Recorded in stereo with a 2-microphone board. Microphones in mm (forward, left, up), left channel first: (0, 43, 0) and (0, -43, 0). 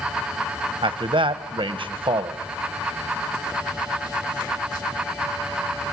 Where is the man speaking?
80° right, 1.1 m.